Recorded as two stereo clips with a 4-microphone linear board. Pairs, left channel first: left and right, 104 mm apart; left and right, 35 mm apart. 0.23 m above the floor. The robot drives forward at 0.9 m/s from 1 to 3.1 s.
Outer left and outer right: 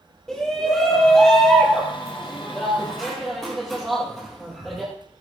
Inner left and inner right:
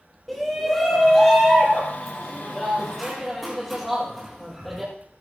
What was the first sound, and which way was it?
A shout, 5° left (ahead or behind).